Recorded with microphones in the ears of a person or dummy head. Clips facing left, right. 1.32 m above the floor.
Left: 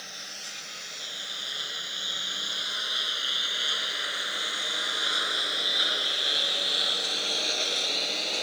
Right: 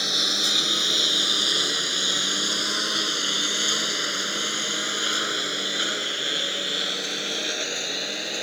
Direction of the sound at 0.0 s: 85° right.